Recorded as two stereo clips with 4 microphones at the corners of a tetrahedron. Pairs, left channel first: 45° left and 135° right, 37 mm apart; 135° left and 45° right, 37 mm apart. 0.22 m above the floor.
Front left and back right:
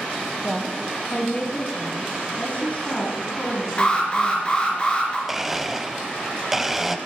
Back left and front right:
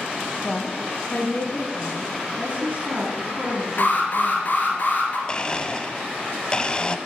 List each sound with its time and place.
0.4 s a woman speaking: 100° left, 1.2 m; by 2.1 s 95° left, 3 m
2.4 s a woman speaking: 10° left, 2.5 m
3.8 s an alarm: 100° left, 3 m
5.3 s a blender: 145° left, 0.7 m